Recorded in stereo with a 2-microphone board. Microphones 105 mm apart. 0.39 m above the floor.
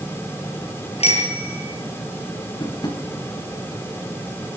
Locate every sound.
1.0 s a bicycle bell: 75° left (ahead or behind), 6 m
2.6 s tapping: 40° left (ahead or behind), 3 m